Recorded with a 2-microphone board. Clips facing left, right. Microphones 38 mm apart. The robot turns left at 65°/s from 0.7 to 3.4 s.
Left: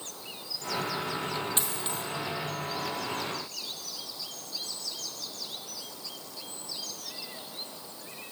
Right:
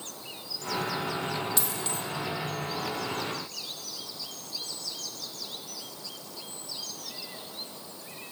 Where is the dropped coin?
40° left (ahead or behind), 1.9 m; by 2.0 s 15° left (ahead or behind), 1.9 m.